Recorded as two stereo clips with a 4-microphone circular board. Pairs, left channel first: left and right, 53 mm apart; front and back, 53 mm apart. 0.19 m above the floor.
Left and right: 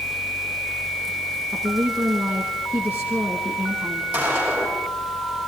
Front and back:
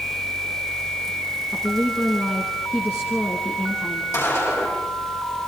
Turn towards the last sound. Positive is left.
turn(degrees=-25)